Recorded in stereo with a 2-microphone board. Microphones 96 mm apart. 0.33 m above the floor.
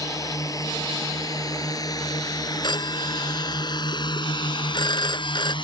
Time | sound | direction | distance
0.0 | a drone | 40° left (ahead or behind) | ?
2.6 | a phone ringing | 55° left (ahead or behind) | ?